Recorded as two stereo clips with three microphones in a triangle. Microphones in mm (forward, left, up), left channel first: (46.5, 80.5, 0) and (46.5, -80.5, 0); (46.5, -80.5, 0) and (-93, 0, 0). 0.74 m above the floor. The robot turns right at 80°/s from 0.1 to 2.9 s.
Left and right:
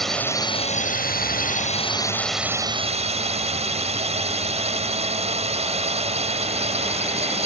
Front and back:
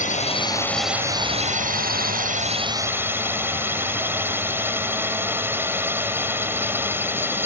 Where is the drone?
Straight ahead; by 7.5 s 135° right.